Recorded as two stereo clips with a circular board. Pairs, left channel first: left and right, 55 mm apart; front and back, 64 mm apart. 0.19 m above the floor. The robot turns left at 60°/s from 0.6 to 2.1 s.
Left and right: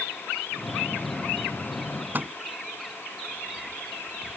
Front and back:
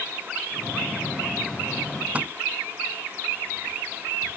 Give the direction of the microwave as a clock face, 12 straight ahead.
4 o'clock.